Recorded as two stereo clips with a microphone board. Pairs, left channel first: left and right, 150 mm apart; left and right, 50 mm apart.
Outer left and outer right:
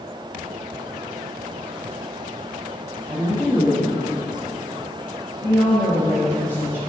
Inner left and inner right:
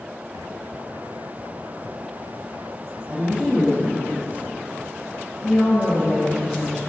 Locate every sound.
3.1 s a woman speaking: 15° left (ahead or behind), 1.6 m